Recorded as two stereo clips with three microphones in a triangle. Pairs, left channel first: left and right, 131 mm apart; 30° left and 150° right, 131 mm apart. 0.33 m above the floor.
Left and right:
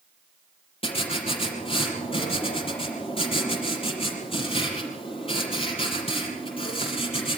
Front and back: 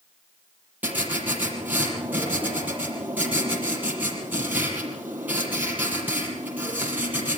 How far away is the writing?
About 5.5 m.